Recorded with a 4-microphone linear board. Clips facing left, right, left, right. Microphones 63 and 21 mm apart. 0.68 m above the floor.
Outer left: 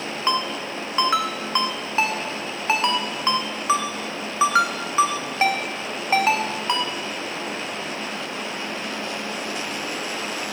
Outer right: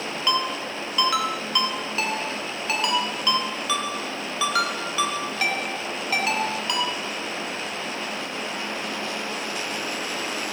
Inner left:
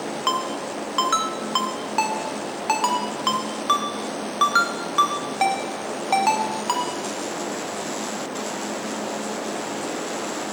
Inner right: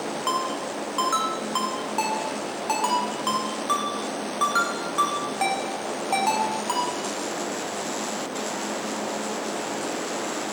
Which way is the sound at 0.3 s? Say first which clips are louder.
Outer left 1 dB, inner left 2 dB; 30° left (ahead or behind).